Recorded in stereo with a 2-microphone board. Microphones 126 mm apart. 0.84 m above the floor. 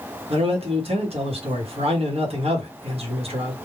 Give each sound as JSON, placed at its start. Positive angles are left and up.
{"t": 0.3, "sound": "a man speaking", "side_deg": -50, "distance_m": 1.0}